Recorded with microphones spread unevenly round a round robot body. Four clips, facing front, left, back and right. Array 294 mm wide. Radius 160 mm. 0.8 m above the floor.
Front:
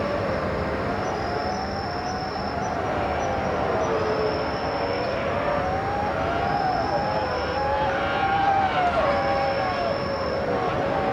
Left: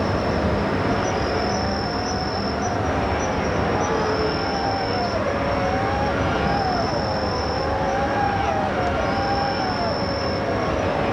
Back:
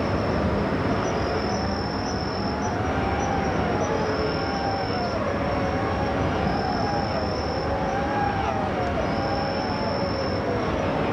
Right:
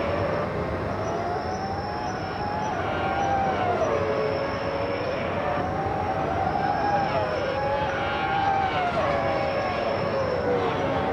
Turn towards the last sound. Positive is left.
turn(degrees=115)